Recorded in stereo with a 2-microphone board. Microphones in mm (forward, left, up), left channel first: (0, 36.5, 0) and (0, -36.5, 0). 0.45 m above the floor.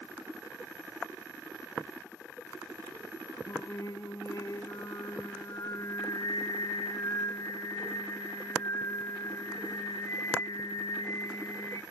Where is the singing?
55° left (ahead or behind), 0.6 m.